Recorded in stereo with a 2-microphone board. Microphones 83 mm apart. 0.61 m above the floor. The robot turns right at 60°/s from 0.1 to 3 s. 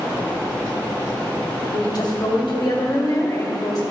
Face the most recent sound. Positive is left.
turn(degrees=125)